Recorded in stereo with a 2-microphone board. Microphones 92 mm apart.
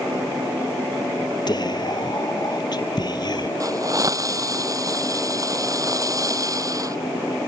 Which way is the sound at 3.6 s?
35° right (ahead or behind).